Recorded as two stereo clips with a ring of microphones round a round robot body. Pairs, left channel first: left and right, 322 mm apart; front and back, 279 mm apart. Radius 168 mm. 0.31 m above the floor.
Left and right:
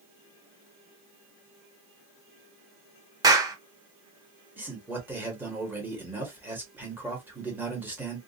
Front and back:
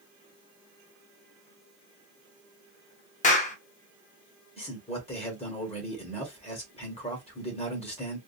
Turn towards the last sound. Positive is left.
turn(degrees=-15)